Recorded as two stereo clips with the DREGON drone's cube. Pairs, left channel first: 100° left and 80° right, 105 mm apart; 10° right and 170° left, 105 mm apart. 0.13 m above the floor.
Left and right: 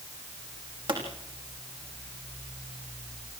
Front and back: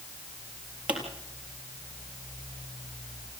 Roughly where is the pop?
Behind right.